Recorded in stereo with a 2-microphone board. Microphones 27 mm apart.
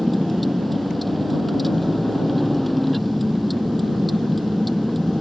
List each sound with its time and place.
0.0 s a vehicle: centre (ahead or behind)